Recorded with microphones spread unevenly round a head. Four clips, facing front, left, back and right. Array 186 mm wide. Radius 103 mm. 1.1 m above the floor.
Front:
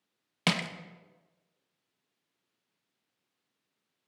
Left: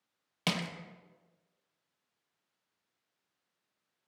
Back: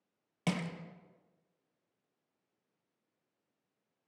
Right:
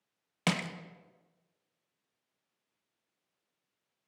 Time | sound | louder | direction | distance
0.5 | crushing | right 2 dB, front 4 dB | 110° right | 0.5 m